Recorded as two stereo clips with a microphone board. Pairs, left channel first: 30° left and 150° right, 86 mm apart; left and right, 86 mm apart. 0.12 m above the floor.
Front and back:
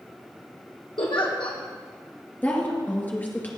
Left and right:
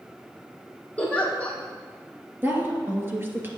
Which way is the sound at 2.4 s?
35° right.